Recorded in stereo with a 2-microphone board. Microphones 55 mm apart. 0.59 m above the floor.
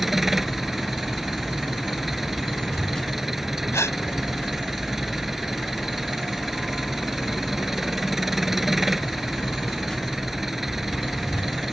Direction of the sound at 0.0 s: 5° right (ahead or behind).